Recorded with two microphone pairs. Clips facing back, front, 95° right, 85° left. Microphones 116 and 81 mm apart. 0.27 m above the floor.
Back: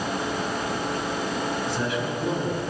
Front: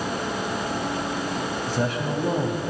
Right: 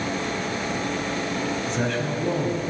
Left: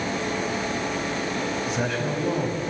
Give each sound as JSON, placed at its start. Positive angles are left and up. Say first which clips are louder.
{"t": 1.7, "sound": "a man speaking", "louder": "front 1 dB, right 1 dB", "azimuth_deg": 0, "distance_m": 1.6}